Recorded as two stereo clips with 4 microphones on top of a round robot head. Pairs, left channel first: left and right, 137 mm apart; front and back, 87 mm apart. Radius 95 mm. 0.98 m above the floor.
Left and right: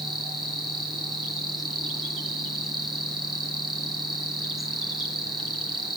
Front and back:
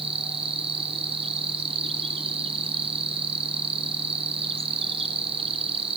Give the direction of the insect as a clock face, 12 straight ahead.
6 o'clock.